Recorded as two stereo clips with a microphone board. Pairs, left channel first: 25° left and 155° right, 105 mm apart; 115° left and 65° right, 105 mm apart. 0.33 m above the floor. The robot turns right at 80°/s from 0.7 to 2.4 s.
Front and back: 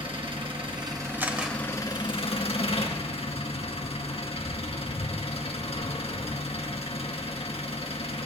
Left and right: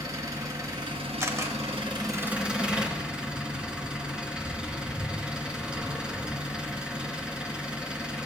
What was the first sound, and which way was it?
An engine running, 125° right.